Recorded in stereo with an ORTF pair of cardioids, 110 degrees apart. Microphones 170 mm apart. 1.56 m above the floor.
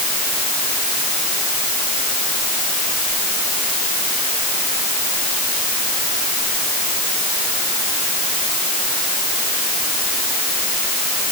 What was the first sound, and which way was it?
Only background noise.